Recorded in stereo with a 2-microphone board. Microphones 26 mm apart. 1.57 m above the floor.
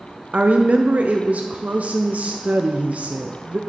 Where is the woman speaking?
65° right (ahead or behind), 0.5 m.